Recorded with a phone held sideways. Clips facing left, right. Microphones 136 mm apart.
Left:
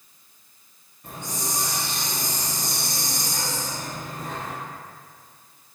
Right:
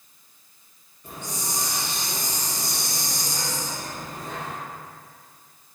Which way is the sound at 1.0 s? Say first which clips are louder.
Left 1 dB; 55° left (ahead or behind).